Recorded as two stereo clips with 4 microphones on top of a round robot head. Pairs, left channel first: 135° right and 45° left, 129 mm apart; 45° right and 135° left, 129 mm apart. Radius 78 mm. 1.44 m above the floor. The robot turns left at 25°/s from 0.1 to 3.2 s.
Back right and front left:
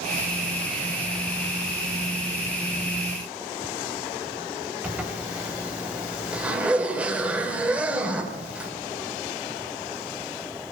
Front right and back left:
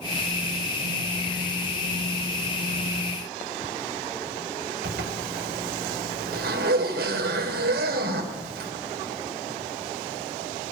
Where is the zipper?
130° left, 5.5 m.